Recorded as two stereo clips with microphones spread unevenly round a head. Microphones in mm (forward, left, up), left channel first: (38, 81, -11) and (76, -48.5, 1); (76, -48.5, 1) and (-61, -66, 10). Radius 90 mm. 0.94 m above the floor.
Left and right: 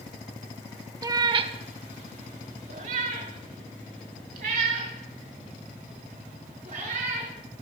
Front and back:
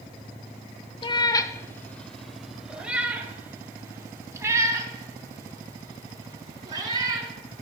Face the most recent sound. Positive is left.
turn(degrees=-115)